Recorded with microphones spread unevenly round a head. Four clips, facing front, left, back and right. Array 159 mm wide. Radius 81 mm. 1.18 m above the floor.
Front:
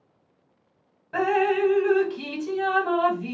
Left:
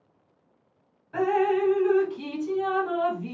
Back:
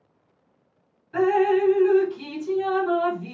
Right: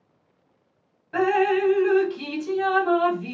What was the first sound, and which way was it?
Dripping, 40° right.